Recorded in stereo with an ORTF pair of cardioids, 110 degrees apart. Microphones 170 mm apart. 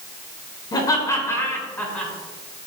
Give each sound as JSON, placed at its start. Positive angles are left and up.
{"t": 0.7, "sound": "laughter", "azimuth_deg": 25, "distance_m": 5.5}